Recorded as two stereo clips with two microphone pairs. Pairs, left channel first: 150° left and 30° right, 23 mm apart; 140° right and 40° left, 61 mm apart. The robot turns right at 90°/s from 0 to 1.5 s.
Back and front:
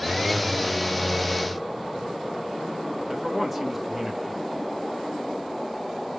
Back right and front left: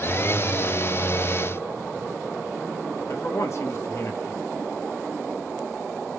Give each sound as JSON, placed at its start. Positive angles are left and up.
{"t": 3.1, "sound": "a man speaking", "azimuth_deg": -110, "distance_m": 1.5}